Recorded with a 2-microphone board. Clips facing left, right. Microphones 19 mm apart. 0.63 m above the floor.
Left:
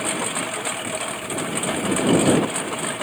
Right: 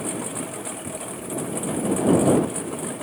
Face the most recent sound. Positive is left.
turn(degrees=55)  # may be behind; listen again after turning